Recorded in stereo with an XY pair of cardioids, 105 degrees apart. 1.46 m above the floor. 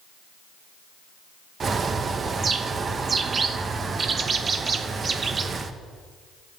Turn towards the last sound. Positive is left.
turn(degrees=-40)